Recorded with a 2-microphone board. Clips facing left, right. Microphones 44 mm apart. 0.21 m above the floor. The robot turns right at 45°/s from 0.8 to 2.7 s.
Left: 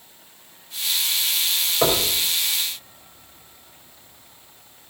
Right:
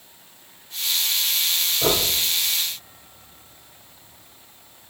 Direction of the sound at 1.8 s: 60° left (ahead or behind).